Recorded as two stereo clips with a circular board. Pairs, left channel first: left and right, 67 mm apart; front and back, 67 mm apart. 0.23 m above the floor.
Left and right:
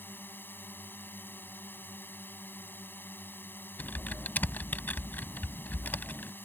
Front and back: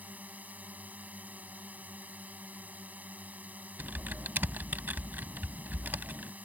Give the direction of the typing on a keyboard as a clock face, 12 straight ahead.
8 o'clock.